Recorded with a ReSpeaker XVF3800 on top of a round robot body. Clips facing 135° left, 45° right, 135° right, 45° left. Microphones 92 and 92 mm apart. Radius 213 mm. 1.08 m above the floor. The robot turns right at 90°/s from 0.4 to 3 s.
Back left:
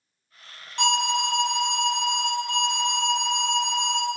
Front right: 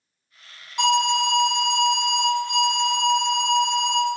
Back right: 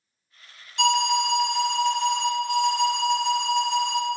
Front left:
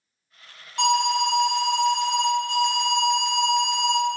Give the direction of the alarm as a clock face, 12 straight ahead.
11 o'clock.